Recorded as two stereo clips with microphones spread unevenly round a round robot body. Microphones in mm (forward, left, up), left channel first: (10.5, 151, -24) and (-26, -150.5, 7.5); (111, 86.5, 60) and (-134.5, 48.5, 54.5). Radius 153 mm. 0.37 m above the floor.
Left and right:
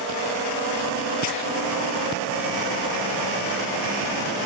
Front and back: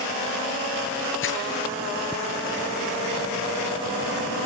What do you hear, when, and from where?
1.2 s crumpling: 45° left, 7.5 m